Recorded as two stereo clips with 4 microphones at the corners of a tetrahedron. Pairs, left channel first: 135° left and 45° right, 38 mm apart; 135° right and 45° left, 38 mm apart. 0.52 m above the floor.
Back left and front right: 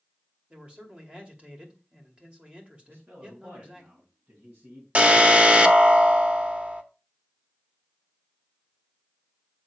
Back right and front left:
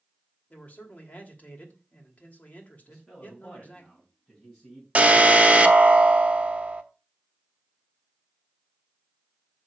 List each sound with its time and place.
0.5 s a man speaking: 95° right, 2.5 m
2.9 s a man speaking: 70° right, 3.5 m
5.0 s an alarm: 5° left, 1.0 m